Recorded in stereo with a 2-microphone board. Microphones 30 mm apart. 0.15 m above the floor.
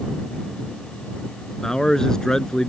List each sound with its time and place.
1.6 s a man speaking: 20° left (ahead or behind)